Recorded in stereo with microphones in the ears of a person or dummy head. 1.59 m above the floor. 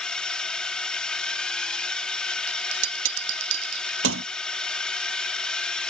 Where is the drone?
5° left (ahead or behind).